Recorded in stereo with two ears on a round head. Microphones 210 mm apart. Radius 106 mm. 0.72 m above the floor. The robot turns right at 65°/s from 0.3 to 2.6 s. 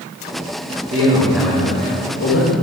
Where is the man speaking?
35° right, 1.9 m; by 2.5 s 75° left, 1.9 m.